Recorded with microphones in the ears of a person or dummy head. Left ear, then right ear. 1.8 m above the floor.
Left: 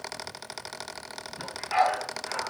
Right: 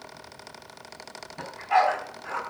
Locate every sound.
1.4 s a dog barking: 40° right (ahead or behind), 4 m